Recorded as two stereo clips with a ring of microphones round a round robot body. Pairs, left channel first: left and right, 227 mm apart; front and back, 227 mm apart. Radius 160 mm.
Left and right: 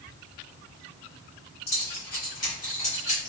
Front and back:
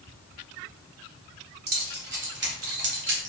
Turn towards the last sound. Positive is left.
turn(degrees=165)